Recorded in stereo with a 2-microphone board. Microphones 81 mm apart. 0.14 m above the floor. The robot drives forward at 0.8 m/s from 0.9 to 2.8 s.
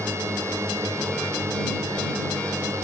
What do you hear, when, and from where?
0.0 s a drone: 35° right (ahead or behind)